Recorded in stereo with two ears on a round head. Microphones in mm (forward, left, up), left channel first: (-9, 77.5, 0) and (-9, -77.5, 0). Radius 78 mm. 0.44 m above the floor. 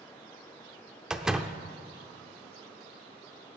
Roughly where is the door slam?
Centre.